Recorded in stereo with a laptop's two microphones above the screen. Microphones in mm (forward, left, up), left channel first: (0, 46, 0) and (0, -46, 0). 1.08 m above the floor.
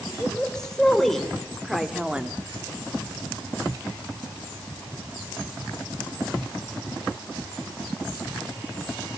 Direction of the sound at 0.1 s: 10° left (ahead or behind).